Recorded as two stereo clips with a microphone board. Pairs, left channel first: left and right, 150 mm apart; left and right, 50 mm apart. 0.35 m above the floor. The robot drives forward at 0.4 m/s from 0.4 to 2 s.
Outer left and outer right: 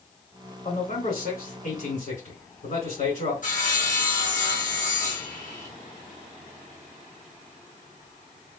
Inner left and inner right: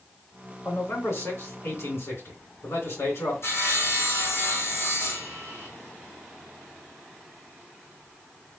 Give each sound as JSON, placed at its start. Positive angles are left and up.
{"t": 0.7, "sound": "a man speaking", "side_deg": 65, "distance_m": 2.5}
{"t": 3.4, "sound": "sawing", "side_deg": 65, "distance_m": 2.0}